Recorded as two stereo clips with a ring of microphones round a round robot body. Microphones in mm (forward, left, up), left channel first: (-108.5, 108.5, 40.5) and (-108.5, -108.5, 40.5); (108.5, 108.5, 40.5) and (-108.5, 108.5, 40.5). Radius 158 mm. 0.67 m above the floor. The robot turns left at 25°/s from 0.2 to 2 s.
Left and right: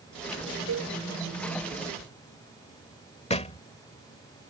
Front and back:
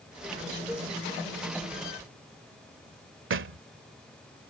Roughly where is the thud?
Behind left.